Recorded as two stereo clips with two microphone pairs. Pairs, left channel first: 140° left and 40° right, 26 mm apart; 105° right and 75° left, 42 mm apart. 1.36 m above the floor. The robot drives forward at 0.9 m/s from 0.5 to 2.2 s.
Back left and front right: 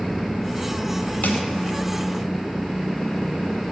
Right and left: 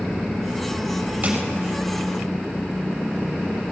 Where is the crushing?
135° left, 5 m.